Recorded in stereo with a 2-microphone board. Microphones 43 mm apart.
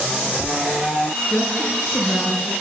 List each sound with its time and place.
1.3 s a woman speaking: 40° left (ahead or behind), 5.5 m